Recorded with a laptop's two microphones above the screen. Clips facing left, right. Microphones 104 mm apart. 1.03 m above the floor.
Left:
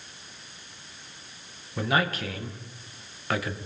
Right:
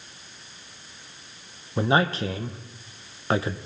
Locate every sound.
1.8 s a man speaking: 30° right (ahead or behind), 0.9 m